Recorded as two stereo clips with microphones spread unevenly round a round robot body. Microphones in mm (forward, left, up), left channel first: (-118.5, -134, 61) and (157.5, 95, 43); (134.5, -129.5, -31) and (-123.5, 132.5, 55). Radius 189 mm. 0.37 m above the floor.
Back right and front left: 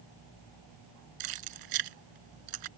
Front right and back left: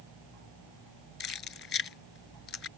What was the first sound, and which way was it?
Keys jangling, 15° left.